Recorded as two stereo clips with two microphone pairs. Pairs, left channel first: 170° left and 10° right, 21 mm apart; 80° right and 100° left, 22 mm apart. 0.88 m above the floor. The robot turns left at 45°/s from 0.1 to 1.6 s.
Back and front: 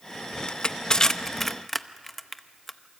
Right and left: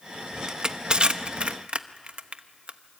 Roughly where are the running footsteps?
I don't hear running footsteps.